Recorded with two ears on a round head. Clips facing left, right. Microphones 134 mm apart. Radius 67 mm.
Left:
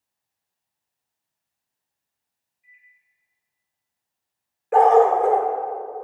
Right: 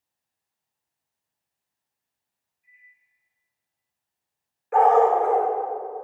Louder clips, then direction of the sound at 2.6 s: Left 1 dB; 10° left (ahead or behind).